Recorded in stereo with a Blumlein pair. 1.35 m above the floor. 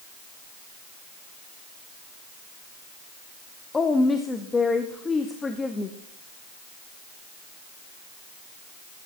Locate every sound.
3.7 s a woman speaking: 15° left, 0.8 m